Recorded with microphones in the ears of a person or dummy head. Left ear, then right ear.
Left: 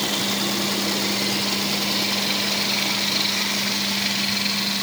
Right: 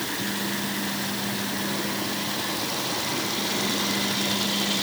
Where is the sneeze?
No sneeze in this recording.